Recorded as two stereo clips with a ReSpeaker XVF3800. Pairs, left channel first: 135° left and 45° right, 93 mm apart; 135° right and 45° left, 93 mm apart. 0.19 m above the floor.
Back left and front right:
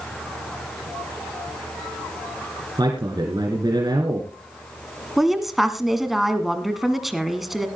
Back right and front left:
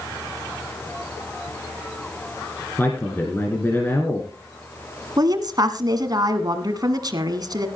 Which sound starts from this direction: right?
A man speaking, at 2.8 s.